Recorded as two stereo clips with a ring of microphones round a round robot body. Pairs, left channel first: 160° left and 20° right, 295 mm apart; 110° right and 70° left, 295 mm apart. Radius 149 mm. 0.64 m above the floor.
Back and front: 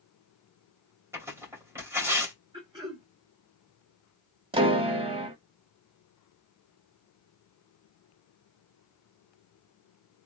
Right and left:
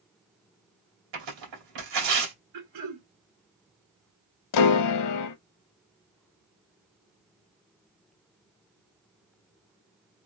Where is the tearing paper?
60° left, 2.5 m.